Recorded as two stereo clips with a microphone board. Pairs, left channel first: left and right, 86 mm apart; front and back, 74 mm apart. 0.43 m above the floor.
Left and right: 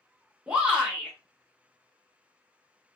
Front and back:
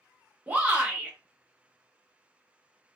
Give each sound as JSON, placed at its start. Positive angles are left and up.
{"t": 0.5, "sound": "a shout", "azimuth_deg": -145, "distance_m": 1.1}